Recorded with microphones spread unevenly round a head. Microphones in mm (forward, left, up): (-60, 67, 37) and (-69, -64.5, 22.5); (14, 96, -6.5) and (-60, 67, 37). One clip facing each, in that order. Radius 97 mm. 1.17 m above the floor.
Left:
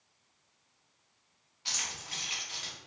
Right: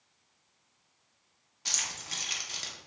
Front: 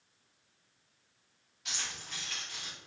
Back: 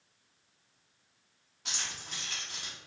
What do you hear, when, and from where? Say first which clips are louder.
1.6 s keys jangling: right 1 dB, back 1 dB; 140° right, 0.6 m